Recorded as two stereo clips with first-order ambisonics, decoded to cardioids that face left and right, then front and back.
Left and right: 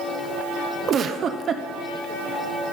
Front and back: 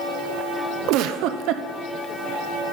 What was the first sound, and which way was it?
A giggle, 150° right.